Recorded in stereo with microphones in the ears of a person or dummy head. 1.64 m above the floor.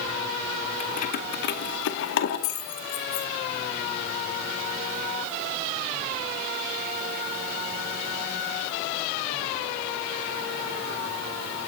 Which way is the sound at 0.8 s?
30° left (ahead or behind).